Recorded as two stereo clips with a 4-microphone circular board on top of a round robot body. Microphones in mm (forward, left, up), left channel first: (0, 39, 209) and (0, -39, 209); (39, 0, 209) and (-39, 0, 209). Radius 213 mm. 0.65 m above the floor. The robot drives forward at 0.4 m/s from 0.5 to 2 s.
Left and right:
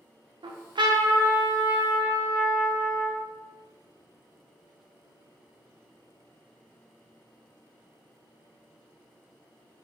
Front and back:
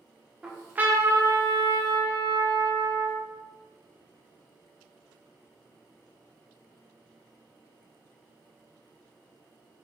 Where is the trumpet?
100° right, 0.6 m; by 3.2 s 140° right, 0.9 m.